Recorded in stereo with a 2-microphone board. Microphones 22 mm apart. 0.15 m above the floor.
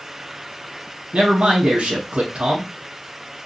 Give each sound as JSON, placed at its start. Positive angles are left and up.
{"t": 1.1, "sound": "a man speaking", "side_deg": -55, "distance_m": 3.0}